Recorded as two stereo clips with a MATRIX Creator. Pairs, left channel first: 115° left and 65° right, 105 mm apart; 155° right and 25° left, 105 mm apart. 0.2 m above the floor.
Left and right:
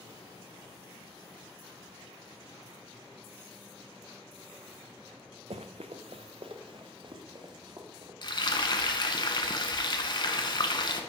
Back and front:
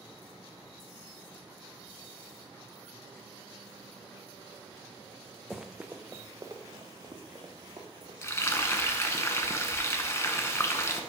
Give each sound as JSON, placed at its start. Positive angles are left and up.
{"t": 5.5, "sound": "running footsteps", "azimuth_deg": -65, "distance_m": 0.6}
{"t": 8.2, "sound": "frying", "azimuth_deg": 145, "distance_m": 0.8}